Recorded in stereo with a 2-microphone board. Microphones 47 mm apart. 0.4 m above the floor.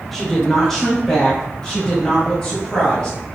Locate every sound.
0.1 s a woman speaking: centre (ahead or behind), 0.8 m; by 3.2 s 20° left (ahead or behind), 2 m